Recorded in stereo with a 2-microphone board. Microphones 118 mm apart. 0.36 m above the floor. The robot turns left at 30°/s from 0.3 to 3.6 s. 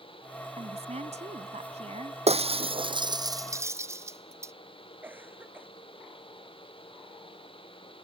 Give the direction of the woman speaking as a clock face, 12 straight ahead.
2 o'clock.